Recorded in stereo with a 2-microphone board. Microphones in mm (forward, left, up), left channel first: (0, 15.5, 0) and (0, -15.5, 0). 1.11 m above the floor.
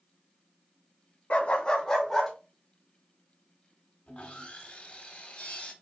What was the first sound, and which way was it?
A dog barking, 45° left (ahead or behind).